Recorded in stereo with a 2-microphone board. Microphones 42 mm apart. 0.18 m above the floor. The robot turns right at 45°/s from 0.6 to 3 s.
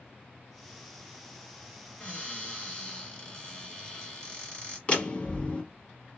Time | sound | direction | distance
2.0 | a cupboard door | 90° left | 1.9 m
4.9 | a door slam | 30° left (ahead or behind) | 1.0 m